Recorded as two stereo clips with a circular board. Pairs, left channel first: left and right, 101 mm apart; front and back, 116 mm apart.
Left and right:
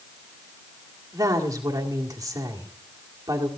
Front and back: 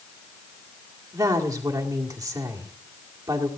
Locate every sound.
1.1 s a woman speaking: 130° right, 1.9 m